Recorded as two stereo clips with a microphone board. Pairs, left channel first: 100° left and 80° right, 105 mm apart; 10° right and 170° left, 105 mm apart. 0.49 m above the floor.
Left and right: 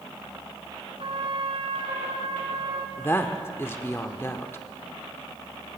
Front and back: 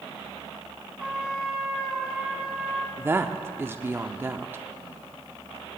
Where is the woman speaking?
130° left, 0.7 m.